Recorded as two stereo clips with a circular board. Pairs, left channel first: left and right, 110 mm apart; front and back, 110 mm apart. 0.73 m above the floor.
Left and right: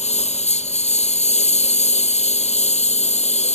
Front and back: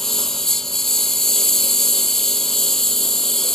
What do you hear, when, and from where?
0.0 s a lawn mower: 85° left